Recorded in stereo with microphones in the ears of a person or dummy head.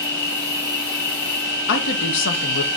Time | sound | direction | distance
0.0 | an insect | 50° left (ahead or behind) | 3 m
1.7 | a woman speaking | 65° left (ahead or behind) | 1.3 m